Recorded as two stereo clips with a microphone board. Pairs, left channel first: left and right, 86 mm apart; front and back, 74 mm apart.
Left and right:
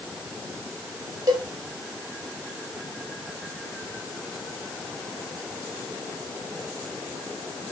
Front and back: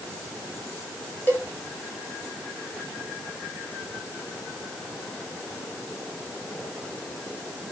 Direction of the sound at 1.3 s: 65° right.